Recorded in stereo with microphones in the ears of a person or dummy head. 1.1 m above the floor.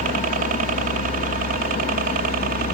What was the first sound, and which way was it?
A helicopter, 40° right (ahead or behind).